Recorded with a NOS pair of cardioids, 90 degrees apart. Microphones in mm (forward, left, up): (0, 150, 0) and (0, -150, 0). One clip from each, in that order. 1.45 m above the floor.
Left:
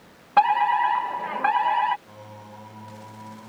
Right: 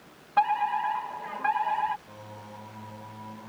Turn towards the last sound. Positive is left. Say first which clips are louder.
# left 1 dB
turn(degrees=15)